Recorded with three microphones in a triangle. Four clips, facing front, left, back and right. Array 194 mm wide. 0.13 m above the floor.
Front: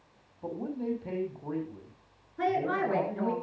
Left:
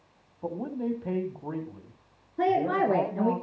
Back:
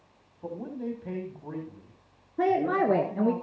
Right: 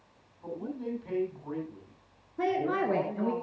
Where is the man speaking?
85° left, 4.5 m.